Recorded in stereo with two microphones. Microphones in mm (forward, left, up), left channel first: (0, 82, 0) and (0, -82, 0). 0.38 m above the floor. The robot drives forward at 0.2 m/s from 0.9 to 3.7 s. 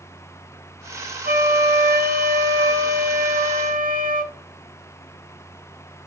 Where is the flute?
65° right (ahead or behind), 0.5 m; by 4.3 s 55° right (ahead or behind), 0.5 m.